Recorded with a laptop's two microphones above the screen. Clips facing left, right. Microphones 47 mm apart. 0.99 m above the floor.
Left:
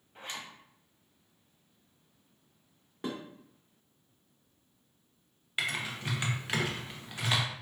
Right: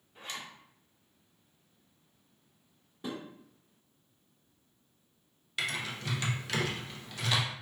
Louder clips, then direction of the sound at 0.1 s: Even; 35° left (ahead or behind).